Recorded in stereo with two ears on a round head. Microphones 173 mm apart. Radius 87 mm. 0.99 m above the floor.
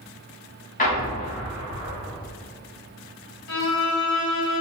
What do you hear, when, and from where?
0.8 s an explosion: 40° left (ahead or behind), 1.6 m
3.5 s a violin: 70° left (ahead or behind), 1.8 m